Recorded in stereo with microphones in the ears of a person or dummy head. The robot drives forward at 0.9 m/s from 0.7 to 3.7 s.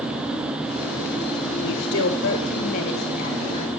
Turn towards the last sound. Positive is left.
turn(degrees=25)  # may be behind; listen again after turning